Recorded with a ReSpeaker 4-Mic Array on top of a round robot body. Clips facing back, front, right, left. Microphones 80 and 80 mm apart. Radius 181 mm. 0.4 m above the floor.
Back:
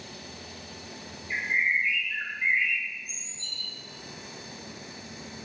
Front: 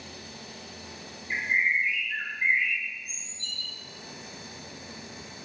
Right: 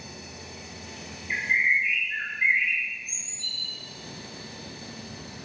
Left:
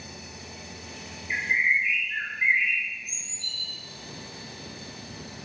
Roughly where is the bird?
Ahead.